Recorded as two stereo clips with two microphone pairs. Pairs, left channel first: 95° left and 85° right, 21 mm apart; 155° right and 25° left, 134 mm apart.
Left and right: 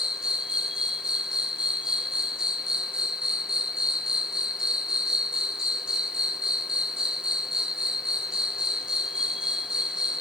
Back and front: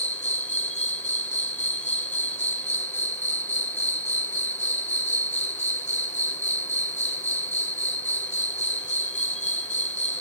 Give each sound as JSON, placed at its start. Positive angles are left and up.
{"t": 0.0, "sound": "an insect", "azimuth_deg": -135, "distance_m": 2.5}